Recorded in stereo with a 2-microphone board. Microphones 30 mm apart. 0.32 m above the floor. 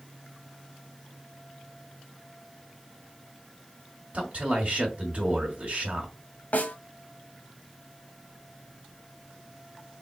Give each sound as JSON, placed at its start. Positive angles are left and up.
{"t": 4.1, "sound": "a man speaking", "side_deg": -45, "distance_m": 1.9}
{"t": 6.5, "sound": "a snare drum", "side_deg": 60, "distance_m": 1.0}